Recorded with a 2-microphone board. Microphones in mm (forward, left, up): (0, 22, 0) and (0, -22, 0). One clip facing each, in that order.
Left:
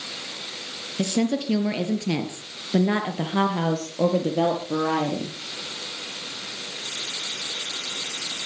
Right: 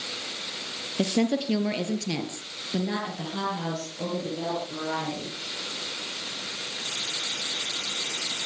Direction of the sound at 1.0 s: 10° right (ahead or behind).